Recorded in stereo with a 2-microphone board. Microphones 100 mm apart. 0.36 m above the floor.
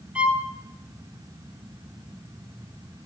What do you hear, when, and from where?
0.1 s a violin: 10° right (ahead or behind), 1.1 m